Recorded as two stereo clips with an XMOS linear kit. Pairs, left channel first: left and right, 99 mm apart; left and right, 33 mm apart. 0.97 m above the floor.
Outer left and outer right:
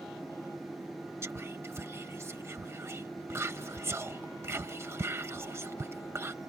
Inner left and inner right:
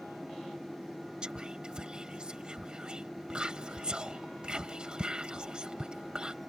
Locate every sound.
1.2 s whispering: 25° right (ahead or behind)